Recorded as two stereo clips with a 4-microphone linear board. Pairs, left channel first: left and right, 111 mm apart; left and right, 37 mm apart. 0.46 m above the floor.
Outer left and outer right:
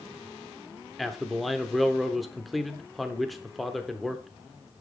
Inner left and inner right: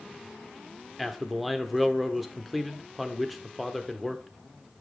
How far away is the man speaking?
About 0.8 m.